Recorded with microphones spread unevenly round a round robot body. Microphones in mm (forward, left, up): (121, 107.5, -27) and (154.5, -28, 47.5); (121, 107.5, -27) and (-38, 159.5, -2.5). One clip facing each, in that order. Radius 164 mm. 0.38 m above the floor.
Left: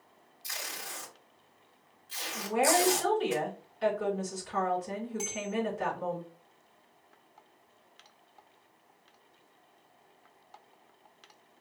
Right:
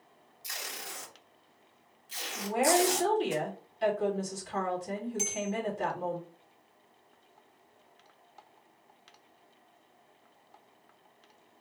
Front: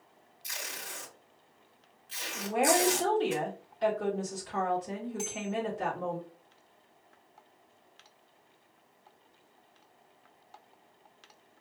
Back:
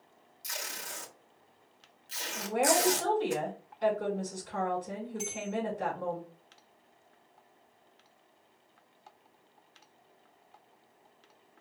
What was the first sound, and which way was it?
Tape being pulled, 175° left.